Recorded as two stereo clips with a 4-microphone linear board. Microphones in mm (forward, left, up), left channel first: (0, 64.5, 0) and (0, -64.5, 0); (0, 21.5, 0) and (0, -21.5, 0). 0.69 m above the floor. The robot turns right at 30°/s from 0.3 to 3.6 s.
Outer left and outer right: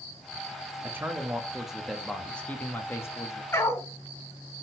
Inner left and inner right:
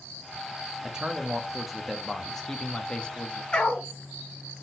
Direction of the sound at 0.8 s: 30° right.